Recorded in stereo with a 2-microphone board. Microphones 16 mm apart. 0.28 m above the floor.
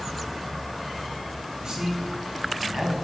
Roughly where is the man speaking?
Right.